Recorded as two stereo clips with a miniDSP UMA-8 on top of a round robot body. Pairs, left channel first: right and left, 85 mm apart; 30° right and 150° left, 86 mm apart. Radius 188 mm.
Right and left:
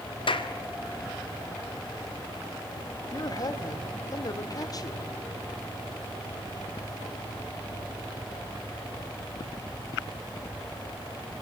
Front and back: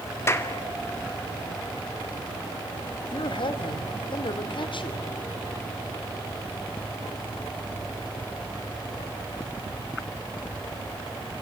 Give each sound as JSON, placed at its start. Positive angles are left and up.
{"t": 0.3, "sound": "a clap", "azimuth_deg": -90, "distance_m": 2.0}
{"t": 3.0, "sound": "a man speaking", "azimuth_deg": -45, "distance_m": 2.5}